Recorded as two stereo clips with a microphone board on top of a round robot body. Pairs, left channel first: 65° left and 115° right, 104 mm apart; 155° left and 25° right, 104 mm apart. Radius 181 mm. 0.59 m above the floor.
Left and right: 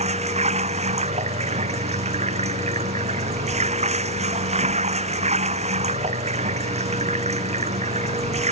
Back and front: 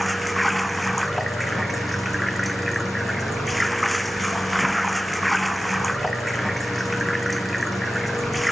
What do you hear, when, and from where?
0.0 s running water: 110° right